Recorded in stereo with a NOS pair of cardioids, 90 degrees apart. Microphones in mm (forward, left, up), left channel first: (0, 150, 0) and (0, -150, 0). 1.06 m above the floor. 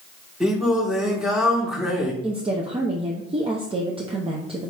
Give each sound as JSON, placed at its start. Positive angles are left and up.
{"t": 0.4, "sound": "singing", "azimuth_deg": 0, "distance_m": 1.3}
{"t": 2.2, "sound": "a woman speaking", "azimuth_deg": -20, "distance_m": 0.7}